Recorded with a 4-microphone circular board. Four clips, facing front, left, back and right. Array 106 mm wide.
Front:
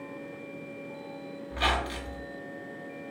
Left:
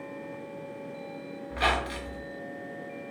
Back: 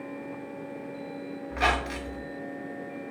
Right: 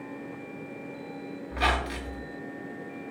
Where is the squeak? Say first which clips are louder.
Even, back 2 dB; 170° right, 0.6 m.